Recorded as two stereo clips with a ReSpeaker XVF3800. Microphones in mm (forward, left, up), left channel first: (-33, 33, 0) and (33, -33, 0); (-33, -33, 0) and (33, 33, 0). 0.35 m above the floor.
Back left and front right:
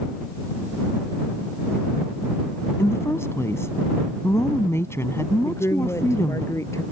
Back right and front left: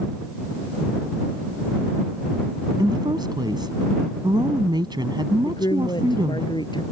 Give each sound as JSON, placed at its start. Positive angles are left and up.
{"t": 2.8, "sound": "a woman speaking", "azimuth_deg": 75}
{"t": 5.5, "sound": "a woman speaking", "azimuth_deg": -165}